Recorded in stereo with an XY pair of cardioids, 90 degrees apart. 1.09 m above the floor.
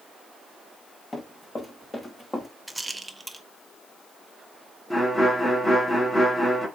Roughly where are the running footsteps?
Ahead left.